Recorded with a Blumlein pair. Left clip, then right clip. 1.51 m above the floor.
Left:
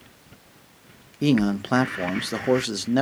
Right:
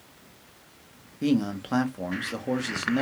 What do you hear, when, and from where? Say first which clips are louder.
1.2 s a man speaking: left 4 dB; 20° left, 0.5 m